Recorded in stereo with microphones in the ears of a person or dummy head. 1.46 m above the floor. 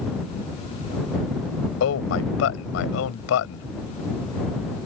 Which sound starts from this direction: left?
A man speaking, at 1.8 s.